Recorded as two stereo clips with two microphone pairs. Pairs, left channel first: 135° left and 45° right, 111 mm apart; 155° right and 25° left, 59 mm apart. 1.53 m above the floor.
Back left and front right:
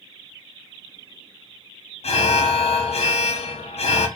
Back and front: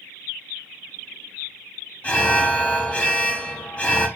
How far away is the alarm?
About 0.7 m.